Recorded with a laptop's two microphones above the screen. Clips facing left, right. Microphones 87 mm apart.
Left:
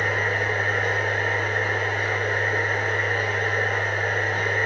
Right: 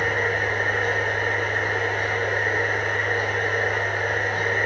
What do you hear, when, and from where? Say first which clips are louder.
0.0 s a machine running: right 1 dB; 25° right (ahead or behind), 1.9 m